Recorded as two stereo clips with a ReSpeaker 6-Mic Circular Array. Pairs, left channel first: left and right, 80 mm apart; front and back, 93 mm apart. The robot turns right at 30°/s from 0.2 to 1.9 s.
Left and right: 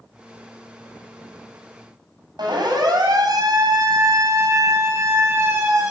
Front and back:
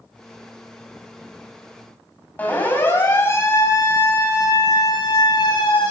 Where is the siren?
70° right, 6 m; by 5.9 s 30° right, 6.5 m.